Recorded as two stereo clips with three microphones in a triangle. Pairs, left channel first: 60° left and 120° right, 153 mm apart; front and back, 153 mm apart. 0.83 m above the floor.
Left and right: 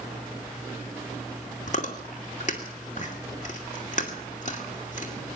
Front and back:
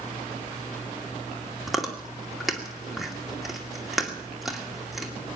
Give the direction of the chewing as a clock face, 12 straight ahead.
9 o'clock.